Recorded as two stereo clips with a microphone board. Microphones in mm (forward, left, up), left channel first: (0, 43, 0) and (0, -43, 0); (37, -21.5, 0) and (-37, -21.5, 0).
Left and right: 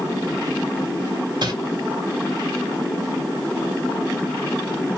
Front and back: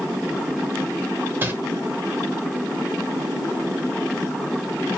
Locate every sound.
1.4 s crumpling: 120° right, 1.1 m